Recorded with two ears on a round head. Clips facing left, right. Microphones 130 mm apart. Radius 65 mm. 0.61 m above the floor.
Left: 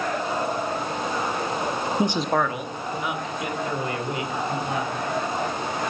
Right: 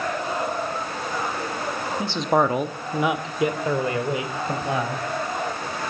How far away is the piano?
I don't hear a piano.